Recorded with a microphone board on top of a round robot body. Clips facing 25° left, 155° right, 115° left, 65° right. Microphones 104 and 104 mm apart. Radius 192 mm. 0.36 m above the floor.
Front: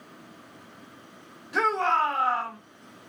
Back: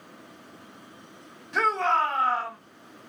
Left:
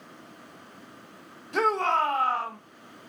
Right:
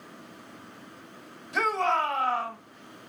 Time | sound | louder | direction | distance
1.5 | a shout | even, left 2 dB | 105° left | 2 m